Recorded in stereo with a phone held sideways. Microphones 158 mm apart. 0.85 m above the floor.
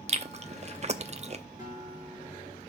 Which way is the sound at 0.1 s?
45° right (ahead or behind).